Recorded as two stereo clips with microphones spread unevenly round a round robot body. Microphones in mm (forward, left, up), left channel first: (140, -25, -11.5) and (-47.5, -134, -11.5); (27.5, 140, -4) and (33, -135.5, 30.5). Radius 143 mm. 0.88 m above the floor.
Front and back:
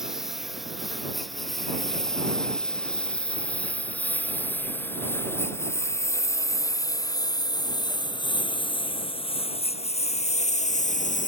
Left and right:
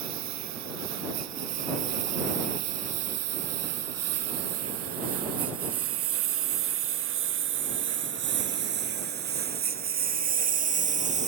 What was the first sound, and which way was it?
A lawn mower, 60° right.